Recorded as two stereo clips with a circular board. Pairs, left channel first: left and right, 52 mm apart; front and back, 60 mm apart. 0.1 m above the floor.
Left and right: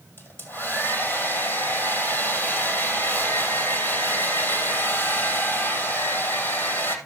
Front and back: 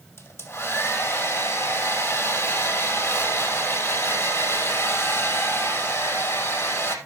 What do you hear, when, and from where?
0.2 s a hair dryer: 45° left, 2.5 m